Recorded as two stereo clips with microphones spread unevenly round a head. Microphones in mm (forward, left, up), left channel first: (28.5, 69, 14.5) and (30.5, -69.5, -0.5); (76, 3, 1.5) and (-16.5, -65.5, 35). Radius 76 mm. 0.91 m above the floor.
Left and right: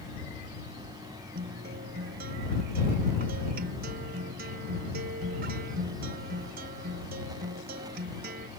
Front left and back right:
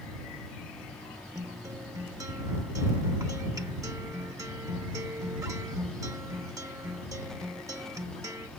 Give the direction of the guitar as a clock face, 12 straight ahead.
3 o'clock.